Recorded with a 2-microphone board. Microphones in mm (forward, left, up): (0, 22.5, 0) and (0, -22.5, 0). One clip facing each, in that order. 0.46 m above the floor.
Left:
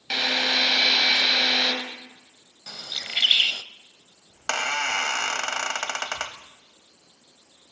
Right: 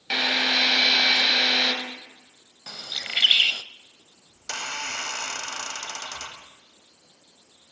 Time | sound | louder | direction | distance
0.1 | a drill | right 1 dB | 10° right (ahead or behind) | 3 m
2.7 | a bird | right 1 dB | 20° right (ahead or behind) | 0.5 m
4.3 | a squeak | left 7 dB | 70° left (ahead or behind) | 1.3 m